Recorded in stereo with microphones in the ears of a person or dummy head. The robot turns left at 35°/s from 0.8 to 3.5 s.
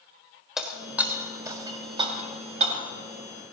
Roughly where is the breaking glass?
Centre.